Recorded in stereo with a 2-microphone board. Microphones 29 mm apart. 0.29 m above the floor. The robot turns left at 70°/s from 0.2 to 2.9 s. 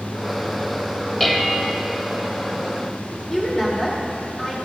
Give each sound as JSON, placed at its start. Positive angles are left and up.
{"t": 1.2, "sound": "dishes clattering", "side_deg": 5, "distance_m": 0.8}
{"t": 3.3, "sound": "a woman speaking", "side_deg": 20, "distance_m": 4.5}